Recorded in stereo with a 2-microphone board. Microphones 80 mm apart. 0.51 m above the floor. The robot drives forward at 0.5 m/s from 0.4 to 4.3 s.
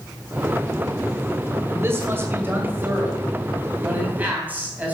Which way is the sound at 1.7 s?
30° right (ahead or behind).